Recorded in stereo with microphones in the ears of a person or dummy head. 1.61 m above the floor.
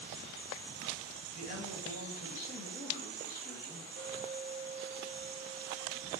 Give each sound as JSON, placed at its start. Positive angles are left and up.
{"t": 1.3, "sound": "a man speaking", "side_deg": 45, "distance_m": 3.0}
{"t": 4.0, "sound": "a clink", "side_deg": -30, "distance_m": 1.9}